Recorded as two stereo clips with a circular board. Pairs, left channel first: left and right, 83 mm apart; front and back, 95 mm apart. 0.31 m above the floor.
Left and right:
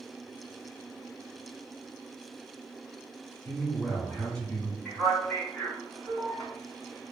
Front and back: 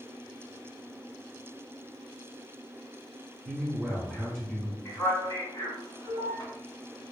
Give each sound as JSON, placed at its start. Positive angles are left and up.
{"t": 3.5, "sound": "a man speaking", "azimuth_deg": 85, "distance_m": 1.0}
{"t": 4.8, "sound": "a man speaking", "azimuth_deg": 5, "distance_m": 1.7}